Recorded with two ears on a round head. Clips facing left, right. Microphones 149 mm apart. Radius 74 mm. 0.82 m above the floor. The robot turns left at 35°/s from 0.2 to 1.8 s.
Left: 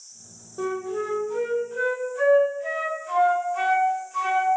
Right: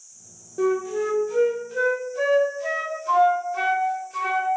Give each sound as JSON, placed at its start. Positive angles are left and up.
{"t": 0.6, "sound": "a flute", "azimuth_deg": -30, "distance_m": 0.5}